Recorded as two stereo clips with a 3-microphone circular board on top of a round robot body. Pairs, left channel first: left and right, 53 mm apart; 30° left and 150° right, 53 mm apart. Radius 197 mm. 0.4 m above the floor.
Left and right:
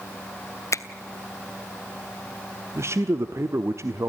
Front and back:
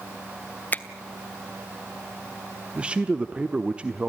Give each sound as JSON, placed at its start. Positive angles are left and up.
{"t": 0.7, "sound": "a finger snap", "azimuth_deg": 85, "distance_m": 1.3}
{"t": 2.8, "sound": "a man speaking", "azimuth_deg": -85, "distance_m": 1.3}